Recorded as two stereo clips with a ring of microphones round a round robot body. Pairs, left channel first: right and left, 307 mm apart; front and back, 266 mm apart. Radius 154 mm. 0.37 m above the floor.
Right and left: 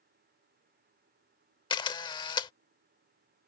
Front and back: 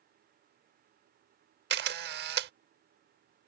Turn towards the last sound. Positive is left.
turn(degrees=-160)